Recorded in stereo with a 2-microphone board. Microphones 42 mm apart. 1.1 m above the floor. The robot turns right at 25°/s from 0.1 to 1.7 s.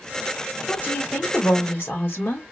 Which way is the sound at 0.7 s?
35° left (ahead or behind).